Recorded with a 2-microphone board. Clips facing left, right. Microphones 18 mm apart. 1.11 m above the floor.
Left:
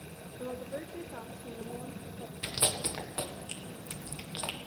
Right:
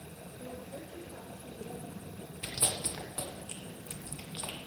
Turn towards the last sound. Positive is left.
turn(degrees=25)  # may be behind; listen again after turning